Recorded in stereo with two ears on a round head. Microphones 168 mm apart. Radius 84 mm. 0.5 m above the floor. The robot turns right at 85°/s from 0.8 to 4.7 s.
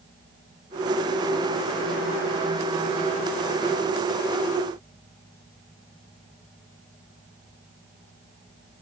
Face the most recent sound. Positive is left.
No sound to turn to.